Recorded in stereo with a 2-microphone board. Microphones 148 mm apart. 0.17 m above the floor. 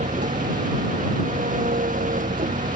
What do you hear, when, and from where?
0.0 s an engine running: 65° right (ahead or behind)